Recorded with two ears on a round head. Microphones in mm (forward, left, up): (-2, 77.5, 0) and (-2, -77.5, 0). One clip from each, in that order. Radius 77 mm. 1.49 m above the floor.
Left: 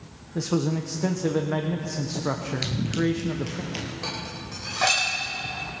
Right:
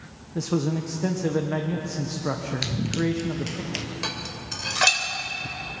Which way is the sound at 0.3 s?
10° left (ahead or behind).